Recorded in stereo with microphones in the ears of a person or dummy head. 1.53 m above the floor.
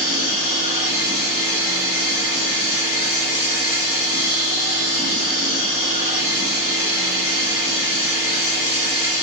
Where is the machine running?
55° left (ahead or behind), 1.2 m.